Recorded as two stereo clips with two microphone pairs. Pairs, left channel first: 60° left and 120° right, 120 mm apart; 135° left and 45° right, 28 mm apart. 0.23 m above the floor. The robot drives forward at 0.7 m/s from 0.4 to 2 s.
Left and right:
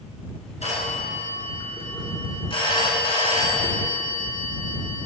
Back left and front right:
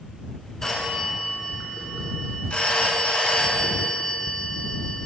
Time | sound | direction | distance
0.6 | a phone ringing | 65° left | 1.8 m